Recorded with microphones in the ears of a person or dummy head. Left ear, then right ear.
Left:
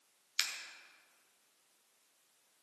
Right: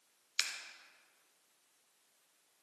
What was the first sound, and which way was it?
Scissors, 5° right (ahead or behind).